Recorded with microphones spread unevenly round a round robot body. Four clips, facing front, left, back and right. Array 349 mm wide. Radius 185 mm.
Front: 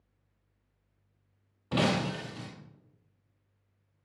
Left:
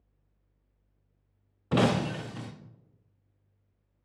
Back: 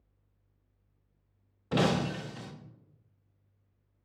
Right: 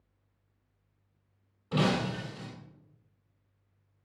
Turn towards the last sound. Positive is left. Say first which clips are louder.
# left 3 dB, back 1 dB
turn(degrees=75)